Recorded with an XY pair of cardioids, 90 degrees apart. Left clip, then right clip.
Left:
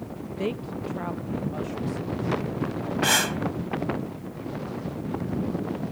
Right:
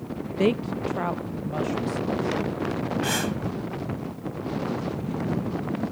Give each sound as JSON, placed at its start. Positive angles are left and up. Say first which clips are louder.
{"t": 0.4, "sound": "a woman speaking", "louder": "right 7 dB", "azimuth_deg": -55}
{"t": 3.0, "sound": "breathing", "louder": "left 7 dB", "azimuth_deg": 50}